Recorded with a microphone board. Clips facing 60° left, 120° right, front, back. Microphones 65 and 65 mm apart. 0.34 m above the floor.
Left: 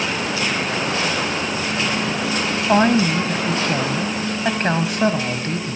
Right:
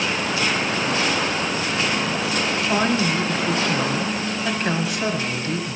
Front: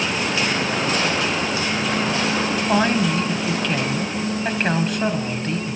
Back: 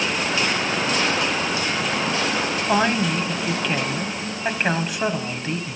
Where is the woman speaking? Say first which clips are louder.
Left 7 dB, front 1 dB; 95° left, 1.7 m.